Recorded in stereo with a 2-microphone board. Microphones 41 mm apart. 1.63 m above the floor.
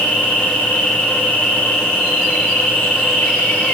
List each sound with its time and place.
0.0 s an insect: 50° left (ahead or behind), 2 m